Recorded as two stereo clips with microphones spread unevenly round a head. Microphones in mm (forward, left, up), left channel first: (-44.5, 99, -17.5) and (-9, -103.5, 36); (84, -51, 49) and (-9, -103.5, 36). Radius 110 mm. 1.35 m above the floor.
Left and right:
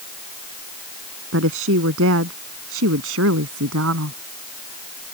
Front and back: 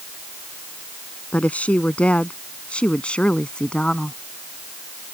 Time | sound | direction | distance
1.3 | a woman speaking | 45° right | ?